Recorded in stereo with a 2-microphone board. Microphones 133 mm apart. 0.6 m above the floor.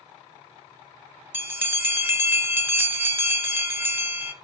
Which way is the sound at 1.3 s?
15° right (ahead or behind).